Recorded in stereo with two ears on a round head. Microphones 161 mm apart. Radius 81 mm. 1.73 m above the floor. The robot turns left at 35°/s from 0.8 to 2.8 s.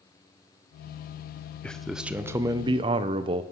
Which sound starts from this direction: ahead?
A man speaking, at 1.6 s.